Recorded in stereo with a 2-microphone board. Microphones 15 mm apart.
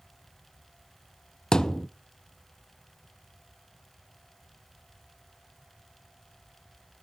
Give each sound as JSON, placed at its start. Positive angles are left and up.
{"t": 1.5, "sound": "a thud", "side_deg": 50, "distance_m": 0.7}